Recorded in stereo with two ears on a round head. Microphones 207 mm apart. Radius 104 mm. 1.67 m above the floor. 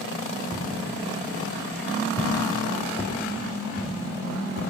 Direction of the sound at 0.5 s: 15° right (ahead or behind).